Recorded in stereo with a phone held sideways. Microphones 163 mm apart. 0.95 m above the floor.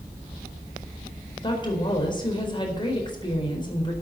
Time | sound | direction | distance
1.4 | a woman speaking | 30° left (ahead or behind) | 4.5 m